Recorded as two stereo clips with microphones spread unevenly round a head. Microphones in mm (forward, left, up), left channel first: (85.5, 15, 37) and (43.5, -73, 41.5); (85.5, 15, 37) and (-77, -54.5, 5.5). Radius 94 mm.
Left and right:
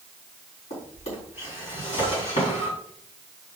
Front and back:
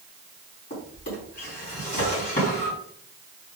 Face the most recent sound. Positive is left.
turn(degrees=70)